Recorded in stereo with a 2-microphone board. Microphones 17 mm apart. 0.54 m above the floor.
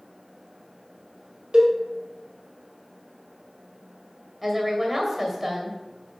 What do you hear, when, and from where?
1.5 s a cowbell: 70° right (ahead or behind), 1.4 m
4.4 s a woman speaking: 20° right (ahead or behind), 2 m